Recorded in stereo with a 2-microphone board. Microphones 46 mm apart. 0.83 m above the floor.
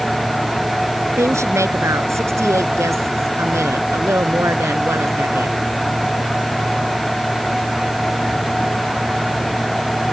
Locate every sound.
1.1 s a woman speaking: 85° right; by 5.6 s 70° right (ahead or behind)